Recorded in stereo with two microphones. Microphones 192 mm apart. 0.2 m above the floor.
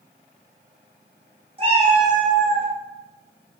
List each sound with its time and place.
1.6 s a cat meowing: 35° right (ahead or behind), 1.7 m; by 2.7 s 50° right (ahead or behind), 2.0 m